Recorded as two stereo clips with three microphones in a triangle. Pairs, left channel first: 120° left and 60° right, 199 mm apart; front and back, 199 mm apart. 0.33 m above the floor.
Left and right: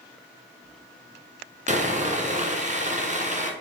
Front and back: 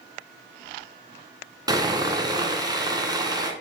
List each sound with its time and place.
1.7 s sawing: 110° right, 1.8 m